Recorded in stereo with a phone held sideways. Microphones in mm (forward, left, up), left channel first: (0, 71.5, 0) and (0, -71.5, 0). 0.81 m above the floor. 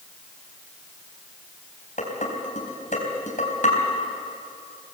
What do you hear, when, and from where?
2.0 s dishes clattering: 60° left (ahead or behind), 4 m